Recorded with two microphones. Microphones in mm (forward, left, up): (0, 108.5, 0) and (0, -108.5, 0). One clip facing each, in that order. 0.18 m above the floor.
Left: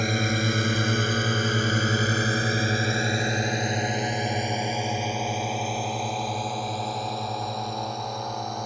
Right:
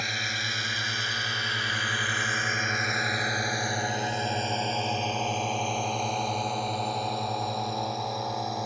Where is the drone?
55° left (ahead or behind); by 8.7 s 5° right (ahead or behind).